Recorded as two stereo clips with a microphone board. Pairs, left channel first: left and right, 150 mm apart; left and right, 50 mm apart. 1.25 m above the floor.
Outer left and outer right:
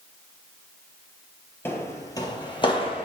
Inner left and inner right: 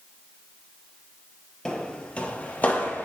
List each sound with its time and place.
1.6 s footsteps: 15° left (ahead or behind), 1.3 m; by 3.0 s 35° left (ahead or behind), 1.9 m